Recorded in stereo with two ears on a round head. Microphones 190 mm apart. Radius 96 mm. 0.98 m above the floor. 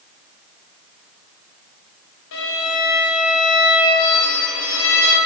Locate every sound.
2.3 s a violin: 65° left (ahead or behind), 1.0 m